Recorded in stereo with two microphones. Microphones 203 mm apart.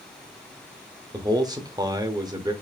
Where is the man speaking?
20° right (ahead or behind), 0.8 m.